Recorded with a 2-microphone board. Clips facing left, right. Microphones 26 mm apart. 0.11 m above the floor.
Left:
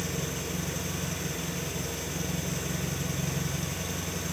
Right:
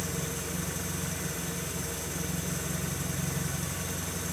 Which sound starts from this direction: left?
An engine running, at 0.0 s.